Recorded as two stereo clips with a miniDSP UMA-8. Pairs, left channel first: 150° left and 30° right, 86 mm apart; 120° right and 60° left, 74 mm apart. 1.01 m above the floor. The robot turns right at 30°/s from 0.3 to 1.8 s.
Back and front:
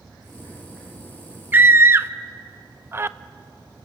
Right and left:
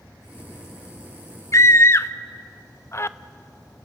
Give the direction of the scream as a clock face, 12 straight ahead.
3 o'clock.